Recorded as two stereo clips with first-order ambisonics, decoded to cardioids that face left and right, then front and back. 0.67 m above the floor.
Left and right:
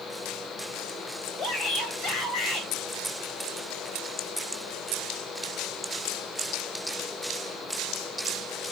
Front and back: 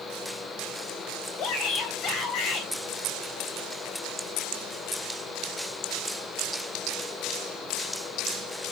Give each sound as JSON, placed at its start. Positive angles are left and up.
{"t": 1.4, "sound": "a shout", "azimuth_deg": 40, "distance_m": 3.5}